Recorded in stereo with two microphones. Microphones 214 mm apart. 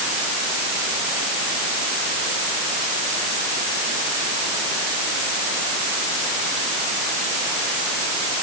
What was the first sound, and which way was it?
Only background noise.